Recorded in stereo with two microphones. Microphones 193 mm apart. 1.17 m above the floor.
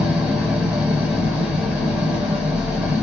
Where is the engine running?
5° right (ahead or behind), 1.7 m.